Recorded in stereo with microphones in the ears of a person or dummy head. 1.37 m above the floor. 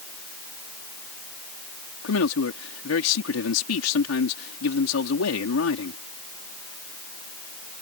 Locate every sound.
2.0 s a man speaking: 80° left